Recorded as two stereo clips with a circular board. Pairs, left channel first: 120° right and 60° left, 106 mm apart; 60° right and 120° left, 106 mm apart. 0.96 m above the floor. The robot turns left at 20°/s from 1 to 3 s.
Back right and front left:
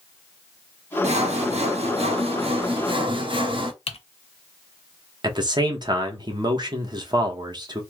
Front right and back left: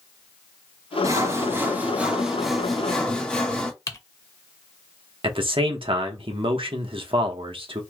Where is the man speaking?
100° left, 0.8 m.